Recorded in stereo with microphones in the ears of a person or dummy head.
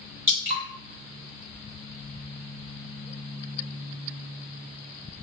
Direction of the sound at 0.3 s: 15° right (ahead or behind).